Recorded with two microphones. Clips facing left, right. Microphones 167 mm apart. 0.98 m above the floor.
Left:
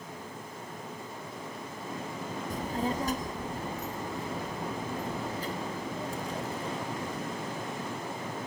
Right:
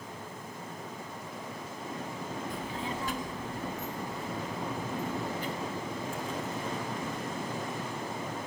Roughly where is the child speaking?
Left.